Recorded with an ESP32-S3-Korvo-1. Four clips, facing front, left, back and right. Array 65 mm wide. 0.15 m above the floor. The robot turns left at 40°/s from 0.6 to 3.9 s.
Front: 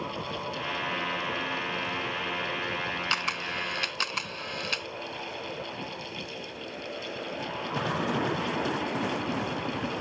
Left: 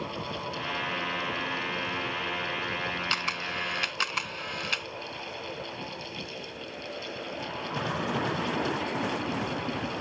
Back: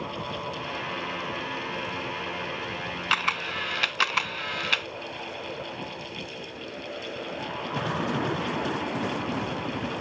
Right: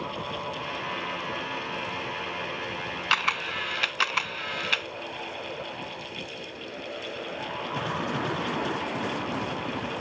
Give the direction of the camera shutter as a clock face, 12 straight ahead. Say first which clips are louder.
Right 5 dB, back 4 dB; 4 o'clock.